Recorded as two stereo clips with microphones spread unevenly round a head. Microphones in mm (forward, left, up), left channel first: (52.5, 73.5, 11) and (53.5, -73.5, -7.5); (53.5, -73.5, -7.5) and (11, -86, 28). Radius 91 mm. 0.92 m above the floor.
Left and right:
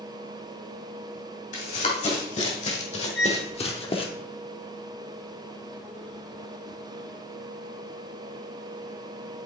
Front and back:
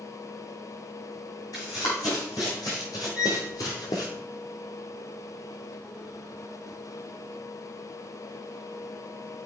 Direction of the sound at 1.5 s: 65° left.